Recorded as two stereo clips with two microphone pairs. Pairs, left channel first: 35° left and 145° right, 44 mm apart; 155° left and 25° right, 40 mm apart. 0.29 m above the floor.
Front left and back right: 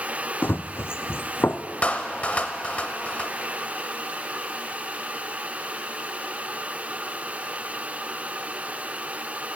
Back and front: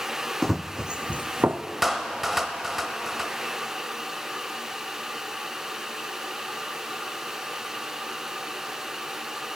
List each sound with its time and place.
0.4 s running footsteps: 70° left, 0.6 m; by 1.6 s 5° right, 0.8 m
1.8 s a clap: 60° left, 0.7 m